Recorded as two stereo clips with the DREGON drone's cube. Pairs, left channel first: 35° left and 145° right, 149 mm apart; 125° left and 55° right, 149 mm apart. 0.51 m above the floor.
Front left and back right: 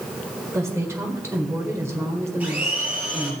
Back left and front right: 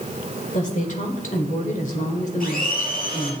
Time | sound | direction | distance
0.5 | a woman speaking | 145° left | 1.7 m
2.4 | a blender | 135° left | 3.5 m